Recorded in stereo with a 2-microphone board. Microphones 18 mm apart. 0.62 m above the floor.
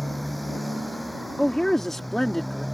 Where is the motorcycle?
5° left (ahead or behind).